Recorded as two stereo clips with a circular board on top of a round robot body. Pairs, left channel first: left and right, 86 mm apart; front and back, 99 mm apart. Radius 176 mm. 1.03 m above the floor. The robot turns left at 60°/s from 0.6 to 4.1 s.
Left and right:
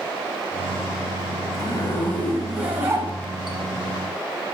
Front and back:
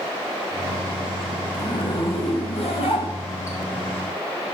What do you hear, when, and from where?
1.5 s a zipper: 55° left, 5 m; by 3.6 s 65° right, 5 m